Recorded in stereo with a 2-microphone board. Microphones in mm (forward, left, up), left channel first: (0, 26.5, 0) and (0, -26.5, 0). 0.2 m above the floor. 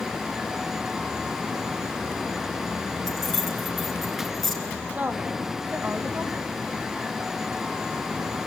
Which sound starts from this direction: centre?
Keys jangling, at 3.1 s.